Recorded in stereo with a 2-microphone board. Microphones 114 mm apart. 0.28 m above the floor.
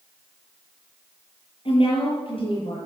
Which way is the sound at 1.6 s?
55° left (ahead or behind).